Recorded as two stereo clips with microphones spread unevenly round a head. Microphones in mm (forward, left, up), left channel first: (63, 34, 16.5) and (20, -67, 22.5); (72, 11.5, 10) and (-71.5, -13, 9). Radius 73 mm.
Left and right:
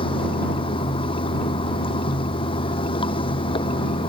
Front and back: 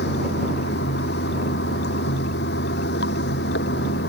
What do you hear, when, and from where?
0.0 s running water: 25° left